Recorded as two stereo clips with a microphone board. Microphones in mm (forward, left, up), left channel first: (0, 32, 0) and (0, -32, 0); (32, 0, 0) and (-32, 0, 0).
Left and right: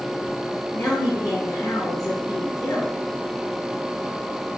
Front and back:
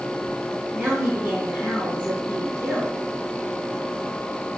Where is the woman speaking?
115° left, 2.5 m.